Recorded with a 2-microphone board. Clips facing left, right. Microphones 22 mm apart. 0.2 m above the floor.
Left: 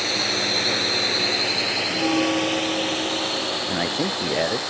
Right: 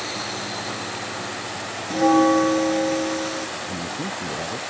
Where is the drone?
35° left (ahead or behind); by 4.7 s 50° left (ahead or behind).